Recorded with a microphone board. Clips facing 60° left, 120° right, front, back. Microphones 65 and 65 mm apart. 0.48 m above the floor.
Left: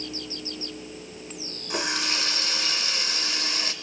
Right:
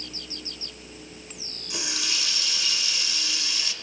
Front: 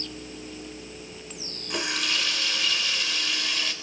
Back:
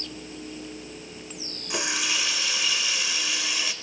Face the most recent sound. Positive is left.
turn(degrees=100)